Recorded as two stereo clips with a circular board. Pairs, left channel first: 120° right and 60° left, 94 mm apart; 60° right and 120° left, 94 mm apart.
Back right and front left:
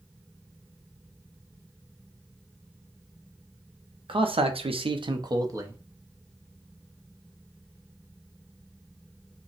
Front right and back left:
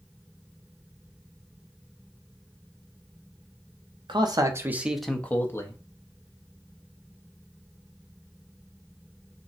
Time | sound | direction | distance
4.1 | a man speaking | 85° left | 0.6 m